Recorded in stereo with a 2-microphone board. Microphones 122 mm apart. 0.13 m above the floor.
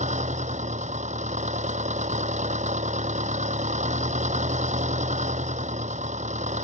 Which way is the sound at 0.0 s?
75° right (ahead or behind).